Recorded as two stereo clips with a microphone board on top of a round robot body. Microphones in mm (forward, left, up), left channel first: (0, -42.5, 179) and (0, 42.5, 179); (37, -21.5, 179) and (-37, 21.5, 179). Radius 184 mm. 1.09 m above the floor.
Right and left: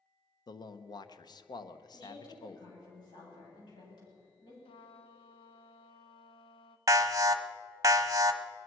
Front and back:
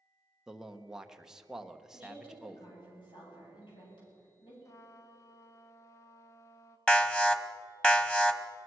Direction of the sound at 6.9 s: 45° left.